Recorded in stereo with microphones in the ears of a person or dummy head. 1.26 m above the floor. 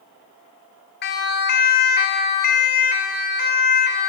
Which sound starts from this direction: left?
A siren, at 1.0 s.